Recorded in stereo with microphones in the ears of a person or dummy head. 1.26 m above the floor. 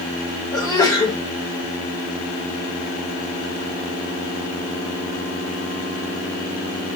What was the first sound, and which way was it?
A sneeze, 20° left (ahead or behind).